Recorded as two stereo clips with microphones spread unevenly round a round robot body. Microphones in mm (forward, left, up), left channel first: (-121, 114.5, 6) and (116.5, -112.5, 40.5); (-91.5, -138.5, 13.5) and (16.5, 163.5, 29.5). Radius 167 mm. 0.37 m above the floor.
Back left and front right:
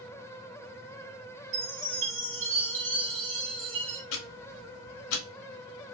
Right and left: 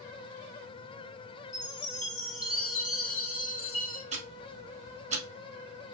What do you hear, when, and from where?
1.5 s a chime: 110° right, 1.9 m
4.1 s ticking: 140° left, 1.0 m